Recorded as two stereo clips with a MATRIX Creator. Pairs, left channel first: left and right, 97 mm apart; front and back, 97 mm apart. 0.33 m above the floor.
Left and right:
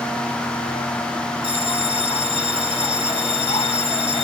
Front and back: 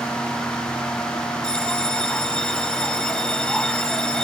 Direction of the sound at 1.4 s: 85° left.